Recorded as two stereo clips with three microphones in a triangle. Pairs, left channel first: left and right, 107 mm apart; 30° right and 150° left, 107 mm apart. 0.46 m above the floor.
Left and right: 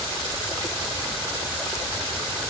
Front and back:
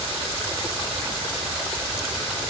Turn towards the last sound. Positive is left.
No sound to turn to.